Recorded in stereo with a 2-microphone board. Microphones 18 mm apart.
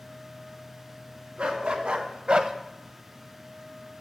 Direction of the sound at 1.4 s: 80° right.